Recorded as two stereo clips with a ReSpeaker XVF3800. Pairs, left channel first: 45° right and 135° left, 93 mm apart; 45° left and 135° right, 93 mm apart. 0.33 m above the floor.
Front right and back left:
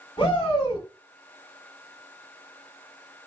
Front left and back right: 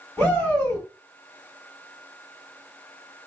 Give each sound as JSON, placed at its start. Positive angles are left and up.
{"t": 0.2, "sound": "a shout", "azimuth_deg": -35, "distance_m": 2.0}